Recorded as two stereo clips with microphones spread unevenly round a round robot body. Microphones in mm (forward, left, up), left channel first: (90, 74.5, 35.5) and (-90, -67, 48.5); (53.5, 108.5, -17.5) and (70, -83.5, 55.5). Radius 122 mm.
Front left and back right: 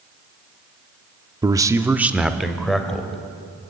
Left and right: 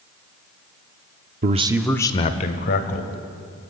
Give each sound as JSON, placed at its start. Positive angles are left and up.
{"t": 1.4, "sound": "a man speaking", "azimuth_deg": -85, "distance_m": 0.8}